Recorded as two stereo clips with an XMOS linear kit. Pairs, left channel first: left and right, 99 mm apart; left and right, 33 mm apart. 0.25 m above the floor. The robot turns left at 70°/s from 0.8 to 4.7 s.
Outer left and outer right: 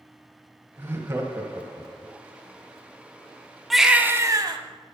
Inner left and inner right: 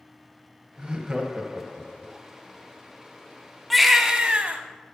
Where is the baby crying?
Straight ahead, 0.8 m; by 4.6 s 60° right, 0.8 m.